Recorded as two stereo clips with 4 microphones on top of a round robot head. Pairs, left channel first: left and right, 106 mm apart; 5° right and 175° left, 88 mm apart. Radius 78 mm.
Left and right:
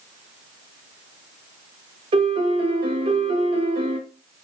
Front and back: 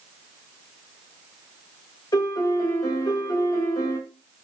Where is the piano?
60° right, 0.6 m.